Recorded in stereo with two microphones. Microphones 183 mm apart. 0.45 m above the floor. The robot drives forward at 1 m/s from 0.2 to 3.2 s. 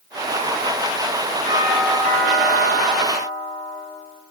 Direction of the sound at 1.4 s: 50° right (ahead or behind).